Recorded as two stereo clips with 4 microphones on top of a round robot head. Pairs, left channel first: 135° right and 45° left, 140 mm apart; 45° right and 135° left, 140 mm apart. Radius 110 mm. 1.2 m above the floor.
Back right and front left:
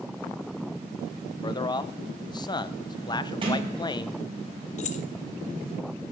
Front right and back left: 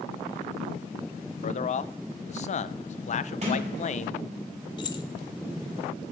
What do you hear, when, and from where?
1.4 s a man speaking: 80° right, 0.6 m
3.4 s a sliding door: 95° left, 5 m
4.8 s keys jangling: 100° right, 0.7 m